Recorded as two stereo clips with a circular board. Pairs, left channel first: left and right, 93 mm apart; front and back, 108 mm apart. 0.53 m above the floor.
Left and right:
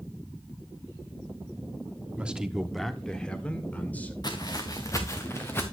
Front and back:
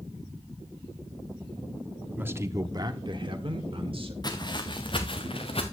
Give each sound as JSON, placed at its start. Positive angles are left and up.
{"t": 2.2, "sound": "a man speaking", "azimuth_deg": -140, "distance_m": 1.0}
{"t": 4.2, "sound": "footsteps", "azimuth_deg": 50, "distance_m": 2.0}